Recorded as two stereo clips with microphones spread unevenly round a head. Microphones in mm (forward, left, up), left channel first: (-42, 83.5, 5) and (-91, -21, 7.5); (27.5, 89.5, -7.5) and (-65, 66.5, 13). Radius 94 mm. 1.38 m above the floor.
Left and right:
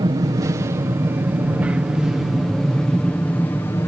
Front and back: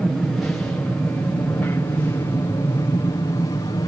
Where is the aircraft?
65° right; by 3.9 s 5° left.